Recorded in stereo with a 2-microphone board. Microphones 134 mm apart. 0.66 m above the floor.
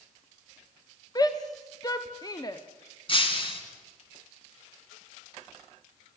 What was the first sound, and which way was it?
A shout, 30° left (ahead or behind).